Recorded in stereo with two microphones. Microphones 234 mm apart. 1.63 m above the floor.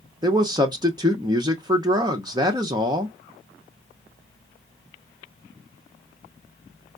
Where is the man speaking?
15° right (ahead or behind), 0.6 m.